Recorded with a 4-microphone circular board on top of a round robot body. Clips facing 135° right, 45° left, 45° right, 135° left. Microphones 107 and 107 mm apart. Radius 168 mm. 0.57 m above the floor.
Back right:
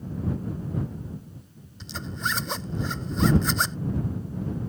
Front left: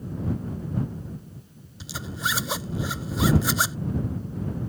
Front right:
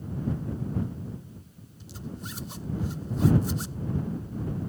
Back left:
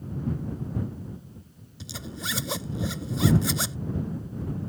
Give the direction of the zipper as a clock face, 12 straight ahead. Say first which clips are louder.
Front left 1 dB, back left 2 dB; 8 o'clock.